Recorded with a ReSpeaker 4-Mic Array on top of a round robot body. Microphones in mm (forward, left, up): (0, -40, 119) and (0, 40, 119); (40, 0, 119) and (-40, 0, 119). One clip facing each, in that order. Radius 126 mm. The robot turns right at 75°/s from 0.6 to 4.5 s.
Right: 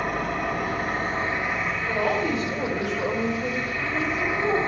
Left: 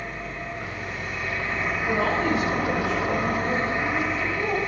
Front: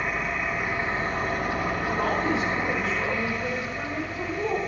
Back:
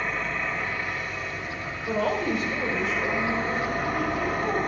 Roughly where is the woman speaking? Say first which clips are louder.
Left 1 dB, back 2 dB; behind.